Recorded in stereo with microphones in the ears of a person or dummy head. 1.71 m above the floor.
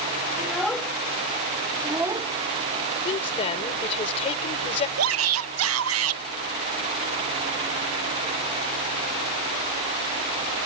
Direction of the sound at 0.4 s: 5° left (ahead or behind).